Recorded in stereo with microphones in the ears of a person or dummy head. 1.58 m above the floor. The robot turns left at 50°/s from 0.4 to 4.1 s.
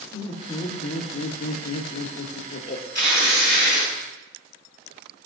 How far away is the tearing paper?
About 4.5 m.